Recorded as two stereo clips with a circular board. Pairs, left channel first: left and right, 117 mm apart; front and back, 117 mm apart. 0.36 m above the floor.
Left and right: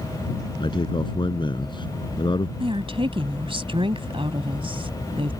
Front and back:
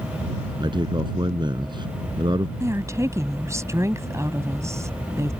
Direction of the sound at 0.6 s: 135° left.